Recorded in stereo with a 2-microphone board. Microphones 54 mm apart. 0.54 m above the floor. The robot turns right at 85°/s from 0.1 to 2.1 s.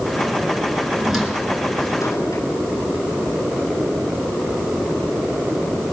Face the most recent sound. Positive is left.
turn(degrees=75)  # may be behind; listen again after turning